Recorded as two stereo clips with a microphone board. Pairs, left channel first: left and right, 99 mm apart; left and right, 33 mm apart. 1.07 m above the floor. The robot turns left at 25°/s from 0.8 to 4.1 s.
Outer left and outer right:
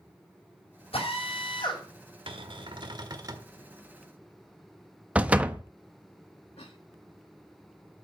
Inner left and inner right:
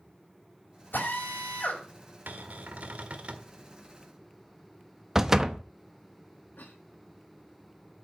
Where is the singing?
I don't hear singing.